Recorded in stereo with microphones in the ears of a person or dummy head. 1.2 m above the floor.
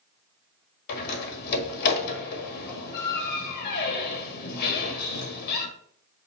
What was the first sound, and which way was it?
A door slam, 55° left (ahead or behind).